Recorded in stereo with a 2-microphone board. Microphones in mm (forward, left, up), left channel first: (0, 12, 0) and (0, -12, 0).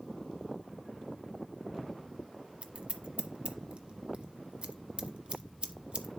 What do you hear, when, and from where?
2.6 s scissors: 45° right (ahead or behind), 0.7 m